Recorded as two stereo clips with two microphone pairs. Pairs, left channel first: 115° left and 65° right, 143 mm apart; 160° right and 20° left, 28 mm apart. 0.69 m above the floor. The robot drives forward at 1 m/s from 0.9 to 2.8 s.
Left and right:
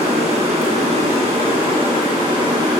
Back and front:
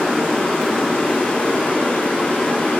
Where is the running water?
105° right, 4 m; by 2.8 s 130° right, 5 m.